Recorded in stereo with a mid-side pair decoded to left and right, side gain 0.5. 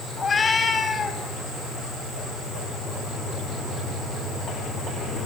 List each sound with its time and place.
0.2 s a cat meowing: 35° left, 4.5 m